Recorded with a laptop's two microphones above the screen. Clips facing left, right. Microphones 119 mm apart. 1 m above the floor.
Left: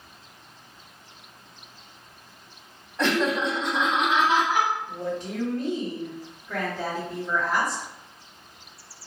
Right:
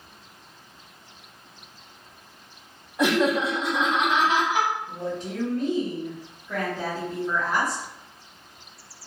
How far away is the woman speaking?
About 1.5 m.